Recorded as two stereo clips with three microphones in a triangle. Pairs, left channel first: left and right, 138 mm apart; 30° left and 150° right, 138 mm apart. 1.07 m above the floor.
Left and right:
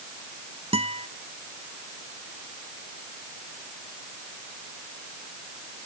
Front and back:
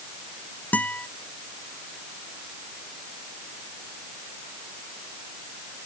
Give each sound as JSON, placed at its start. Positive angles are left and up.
{"t": 0.7, "sound": "a guitar", "azimuth_deg": -50}